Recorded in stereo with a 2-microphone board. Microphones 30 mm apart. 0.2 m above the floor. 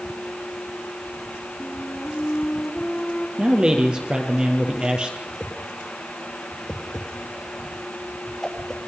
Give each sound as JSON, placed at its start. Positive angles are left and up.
{"t": 1.6, "sound": "a flute", "side_deg": 30, "distance_m": 1.9}
{"t": 3.4, "sound": "a man speaking", "side_deg": -30, "distance_m": 5.0}
{"t": 5.3, "sound": "a whoosh", "side_deg": 20, "distance_m": 3.5}